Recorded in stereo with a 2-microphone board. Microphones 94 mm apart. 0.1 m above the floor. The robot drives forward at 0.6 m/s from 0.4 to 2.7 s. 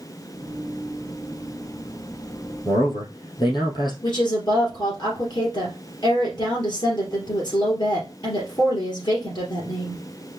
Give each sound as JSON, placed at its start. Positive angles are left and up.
{"t": 2.6, "sound": "a man speaking", "side_deg": 55, "distance_m": 3.0}
{"t": 4.0, "sound": "a woman speaking", "side_deg": 50, "distance_m": 2.5}